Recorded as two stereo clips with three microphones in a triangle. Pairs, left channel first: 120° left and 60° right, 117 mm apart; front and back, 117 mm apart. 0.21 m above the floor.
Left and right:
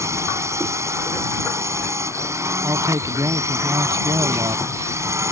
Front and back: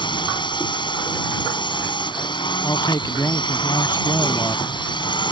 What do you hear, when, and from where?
0.0 s a drone: 10° right
2.6 s a man speaking: 40° right